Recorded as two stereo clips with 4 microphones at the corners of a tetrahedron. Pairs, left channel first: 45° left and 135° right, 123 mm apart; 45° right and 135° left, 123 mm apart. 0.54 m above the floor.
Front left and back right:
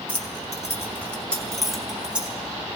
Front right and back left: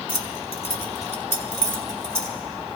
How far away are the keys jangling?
About 1.2 m.